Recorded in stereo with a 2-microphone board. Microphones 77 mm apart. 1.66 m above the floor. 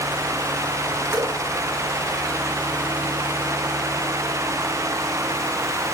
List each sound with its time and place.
1.1 s dripping: 35° right (ahead or behind), 7 m